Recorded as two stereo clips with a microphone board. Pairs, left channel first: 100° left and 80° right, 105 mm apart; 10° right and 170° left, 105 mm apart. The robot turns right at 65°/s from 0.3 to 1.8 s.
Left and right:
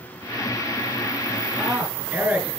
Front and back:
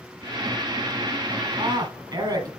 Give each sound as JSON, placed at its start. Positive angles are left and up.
{"t": 1.6, "sound": "a man speaking", "azimuth_deg": -165, "distance_m": 2.0}